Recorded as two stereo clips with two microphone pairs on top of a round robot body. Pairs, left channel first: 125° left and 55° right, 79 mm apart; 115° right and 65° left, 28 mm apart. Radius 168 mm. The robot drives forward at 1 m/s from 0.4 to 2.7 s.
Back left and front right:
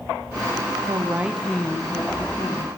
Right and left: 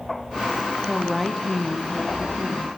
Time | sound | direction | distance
0.9 | a woman speaking | straight ahead | 0.7 m